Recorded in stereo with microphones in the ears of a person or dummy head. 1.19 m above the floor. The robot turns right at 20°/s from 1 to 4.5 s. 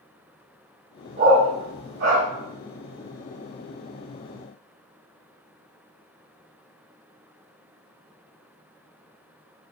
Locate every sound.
1.2 s a dog barking: 35° right (ahead or behind), 1.4 m; by 2.2 s 50° right (ahead or behind), 1.4 m